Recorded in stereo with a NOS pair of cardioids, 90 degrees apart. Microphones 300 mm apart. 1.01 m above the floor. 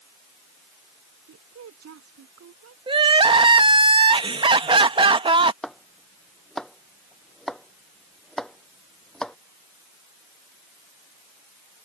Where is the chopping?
Straight ahead.